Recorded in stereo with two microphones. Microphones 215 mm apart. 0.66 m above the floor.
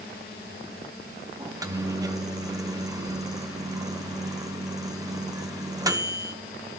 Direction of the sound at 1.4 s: 15° right (ahead or behind).